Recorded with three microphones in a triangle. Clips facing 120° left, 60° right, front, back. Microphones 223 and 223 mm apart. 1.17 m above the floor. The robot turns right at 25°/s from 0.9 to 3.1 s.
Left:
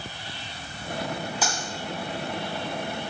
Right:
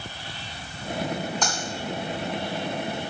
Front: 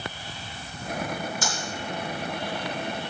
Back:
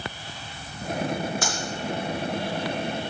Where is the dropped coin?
155° right, 2.5 m.